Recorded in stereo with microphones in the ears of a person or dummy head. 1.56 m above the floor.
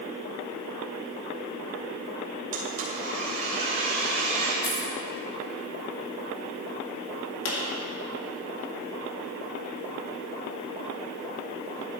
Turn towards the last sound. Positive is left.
turn(degrees=65)  # may be behind; listen again after turning